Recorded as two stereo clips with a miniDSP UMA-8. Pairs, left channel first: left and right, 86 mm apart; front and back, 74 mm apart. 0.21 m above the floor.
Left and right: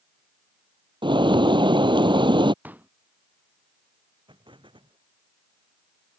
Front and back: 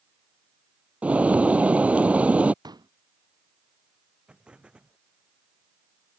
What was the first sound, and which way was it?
A bird, 110° right.